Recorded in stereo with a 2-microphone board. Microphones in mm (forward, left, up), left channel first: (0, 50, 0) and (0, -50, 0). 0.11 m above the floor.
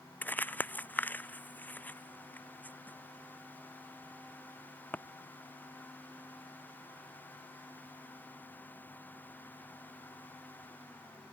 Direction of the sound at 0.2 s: 20° left (ahead or behind).